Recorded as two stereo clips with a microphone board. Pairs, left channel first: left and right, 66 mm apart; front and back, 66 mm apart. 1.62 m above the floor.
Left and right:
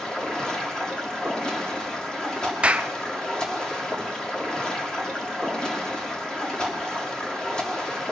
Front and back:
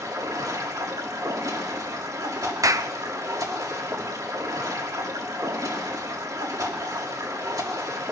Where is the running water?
165° left, 2 m.